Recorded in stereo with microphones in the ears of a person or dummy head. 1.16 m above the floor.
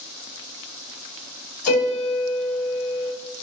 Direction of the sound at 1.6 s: 50° left (ahead or behind).